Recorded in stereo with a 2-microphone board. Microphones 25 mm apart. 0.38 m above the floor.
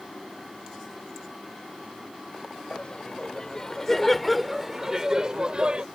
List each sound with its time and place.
2.7 s laughter: 45° left (ahead or behind); by 5.8 s 45° right (ahead or behind)